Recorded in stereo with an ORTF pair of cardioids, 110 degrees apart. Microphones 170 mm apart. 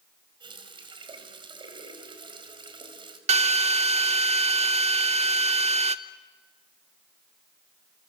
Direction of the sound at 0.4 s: 30° right.